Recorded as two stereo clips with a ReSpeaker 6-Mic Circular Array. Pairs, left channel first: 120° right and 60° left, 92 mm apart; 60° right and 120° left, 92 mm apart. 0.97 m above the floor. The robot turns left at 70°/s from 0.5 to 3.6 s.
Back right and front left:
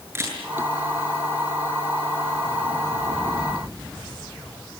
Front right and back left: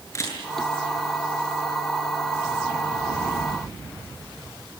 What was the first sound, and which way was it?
A camera shutter, 5° right.